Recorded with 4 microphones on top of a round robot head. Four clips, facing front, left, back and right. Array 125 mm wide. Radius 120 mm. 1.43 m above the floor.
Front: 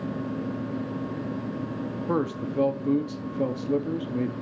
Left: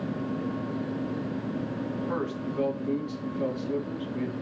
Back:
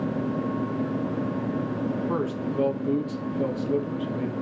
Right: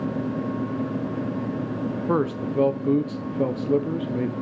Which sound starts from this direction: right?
A man speaking, at 2.1 s.